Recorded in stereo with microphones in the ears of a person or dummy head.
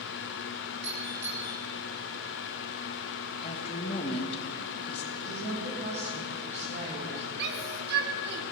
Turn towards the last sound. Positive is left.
turn(degrees=-60)  # may be behind; listen again after turning